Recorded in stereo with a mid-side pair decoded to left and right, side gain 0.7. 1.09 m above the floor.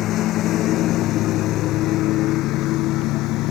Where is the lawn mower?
50° left; by 3.5 s 60° left.